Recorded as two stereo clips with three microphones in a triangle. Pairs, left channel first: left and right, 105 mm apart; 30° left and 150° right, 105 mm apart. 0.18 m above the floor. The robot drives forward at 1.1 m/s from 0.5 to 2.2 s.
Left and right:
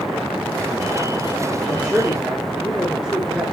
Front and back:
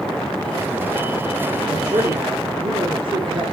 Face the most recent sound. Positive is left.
turn(degrees=-175)